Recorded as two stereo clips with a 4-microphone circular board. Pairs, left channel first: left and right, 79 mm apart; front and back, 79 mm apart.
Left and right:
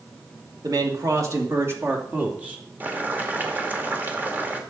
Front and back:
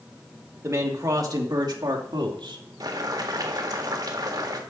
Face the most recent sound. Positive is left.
turn(degrees=-155)